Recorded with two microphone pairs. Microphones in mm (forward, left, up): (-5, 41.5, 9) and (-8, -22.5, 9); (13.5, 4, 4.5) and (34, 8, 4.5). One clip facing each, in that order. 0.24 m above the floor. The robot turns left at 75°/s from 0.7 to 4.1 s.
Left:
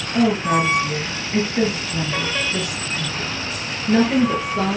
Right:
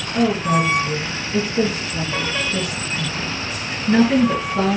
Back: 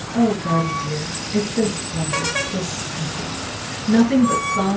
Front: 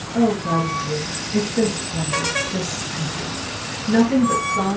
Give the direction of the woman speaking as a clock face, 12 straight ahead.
7 o'clock.